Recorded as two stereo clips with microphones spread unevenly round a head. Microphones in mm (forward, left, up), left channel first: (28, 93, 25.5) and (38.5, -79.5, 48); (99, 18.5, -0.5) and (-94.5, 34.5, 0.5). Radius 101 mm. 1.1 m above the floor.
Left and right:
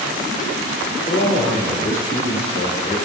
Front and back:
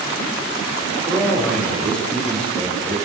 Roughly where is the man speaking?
Left.